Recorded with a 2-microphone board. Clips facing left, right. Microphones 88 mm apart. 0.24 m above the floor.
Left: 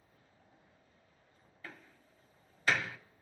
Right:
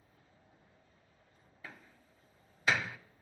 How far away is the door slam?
About 0.7 m.